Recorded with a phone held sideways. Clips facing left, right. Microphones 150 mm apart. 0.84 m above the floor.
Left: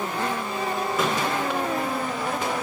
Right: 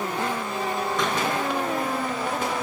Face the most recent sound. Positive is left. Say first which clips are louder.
# left 2 dB
turn(degrees=5)  # may be behind; listen again after turning